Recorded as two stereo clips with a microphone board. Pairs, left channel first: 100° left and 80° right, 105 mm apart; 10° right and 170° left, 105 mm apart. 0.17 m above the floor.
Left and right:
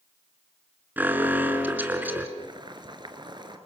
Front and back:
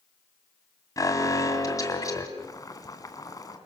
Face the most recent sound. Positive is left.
turn(degrees=-55)